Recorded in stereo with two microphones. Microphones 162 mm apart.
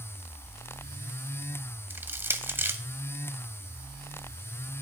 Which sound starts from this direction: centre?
Crushing, at 1.9 s.